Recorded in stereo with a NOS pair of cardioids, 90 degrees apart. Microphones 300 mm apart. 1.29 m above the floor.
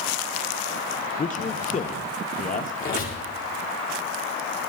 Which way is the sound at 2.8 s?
40° left.